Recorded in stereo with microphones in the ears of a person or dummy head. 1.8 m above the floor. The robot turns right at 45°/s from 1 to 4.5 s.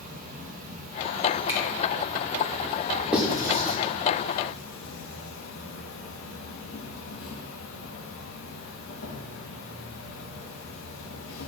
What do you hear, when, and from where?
0.0 s an insect: 50° right, 1.3 m; by 11.5 s 105° left, 1.3 m
1.5 s a finger snap: 15° right (ahead or behind), 1.5 m; by 1.6 s 10° right (ahead or behind), 1.5 m
3.1 s writing: centre (ahead or behind), 1.2 m; by 3.8 s 30° right (ahead or behind), 1.2 m